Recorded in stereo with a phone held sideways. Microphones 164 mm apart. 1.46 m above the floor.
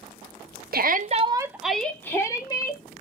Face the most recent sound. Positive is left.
turn(degrees=25)  # may be behind; listen again after turning